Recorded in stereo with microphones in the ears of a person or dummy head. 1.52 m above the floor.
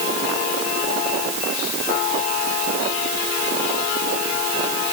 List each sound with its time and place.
Only background noise.